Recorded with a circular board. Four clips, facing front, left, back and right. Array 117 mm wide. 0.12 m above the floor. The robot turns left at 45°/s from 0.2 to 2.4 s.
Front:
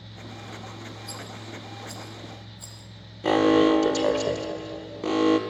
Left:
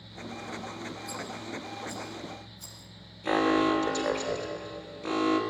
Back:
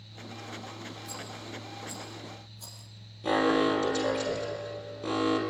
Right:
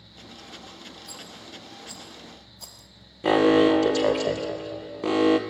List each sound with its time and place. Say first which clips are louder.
1.1 s a rattle: left 6 dB, front 2 dB; 15° right, 4 m; by 2.9 s 75° right, 4 m
3.2 s an alarm: right 7 dB, front 6 dB; 55° right, 3 m